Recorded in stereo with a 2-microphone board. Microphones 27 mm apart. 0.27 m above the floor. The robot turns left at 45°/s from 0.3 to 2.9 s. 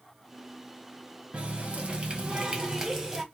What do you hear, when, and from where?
1.3 s a running tap: 80° right, 1.1 m; by 3.2 s 150° right, 1.1 m